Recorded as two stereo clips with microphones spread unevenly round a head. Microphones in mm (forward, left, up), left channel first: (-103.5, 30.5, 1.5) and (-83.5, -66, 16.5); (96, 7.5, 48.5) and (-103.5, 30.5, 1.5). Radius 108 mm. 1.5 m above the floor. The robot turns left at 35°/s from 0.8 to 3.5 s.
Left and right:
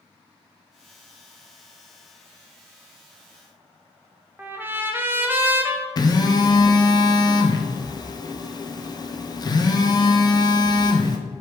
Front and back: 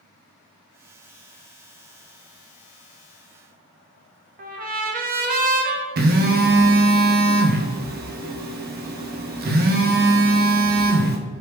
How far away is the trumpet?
About 0.6 m.